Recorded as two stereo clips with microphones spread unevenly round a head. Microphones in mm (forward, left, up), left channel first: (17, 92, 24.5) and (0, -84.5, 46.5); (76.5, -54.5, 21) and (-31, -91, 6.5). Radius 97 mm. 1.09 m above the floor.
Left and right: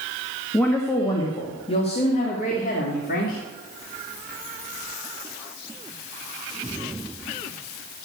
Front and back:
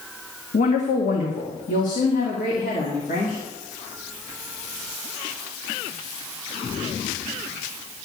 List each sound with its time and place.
0.5 s a woman speaking: straight ahead, 1.7 m; by 3.4 s 45° left, 3 m